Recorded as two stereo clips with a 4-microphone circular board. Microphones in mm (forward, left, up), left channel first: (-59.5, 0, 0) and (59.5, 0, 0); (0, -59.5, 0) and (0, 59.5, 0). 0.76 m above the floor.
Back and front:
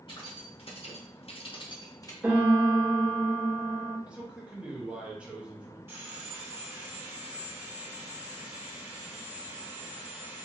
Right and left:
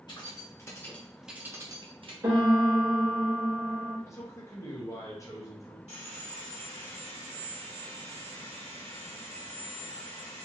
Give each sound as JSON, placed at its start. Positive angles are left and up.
{"t": 0.1, "sound": "keys jangling", "azimuth_deg": -140, "distance_m": 1.0}
{"t": 2.2, "sound": "a piano", "azimuth_deg": 70, "distance_m": 1.3}
{"t": 4.1, "sound": "a man speaking", "azimuth_deg": -70, "distance_m": 0.7}
{"t": 5.9, "sound": "sawing", "azimuth_deg": -70, "distance_m": 1.2}